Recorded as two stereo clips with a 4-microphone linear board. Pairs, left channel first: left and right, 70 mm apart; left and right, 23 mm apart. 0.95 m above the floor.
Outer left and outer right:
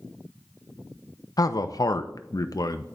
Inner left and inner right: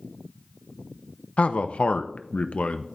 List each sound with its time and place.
1.4 s a man speaking: 60° left (ahead or behind), 0.5 m